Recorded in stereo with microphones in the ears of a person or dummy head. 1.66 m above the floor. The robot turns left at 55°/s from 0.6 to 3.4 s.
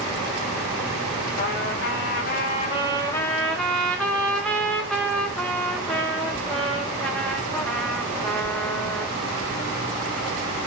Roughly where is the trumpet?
Behind left.